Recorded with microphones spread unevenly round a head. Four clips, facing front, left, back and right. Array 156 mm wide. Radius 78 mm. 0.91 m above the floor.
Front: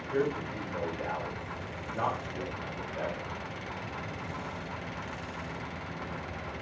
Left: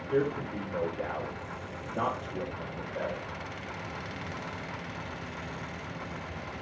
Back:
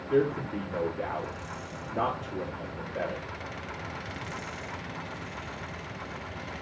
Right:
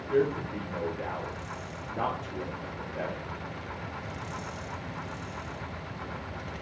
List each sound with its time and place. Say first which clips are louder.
0.1 s a man speaking: right 2 dB, back 5 dB; 150° left, 2 m